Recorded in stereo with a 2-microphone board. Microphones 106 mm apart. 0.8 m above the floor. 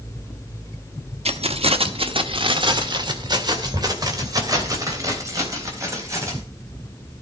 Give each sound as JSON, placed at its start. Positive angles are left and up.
{"t": 1.2, "sound": "keys jangling", "side_deg": -75, "distance_m": 1.1}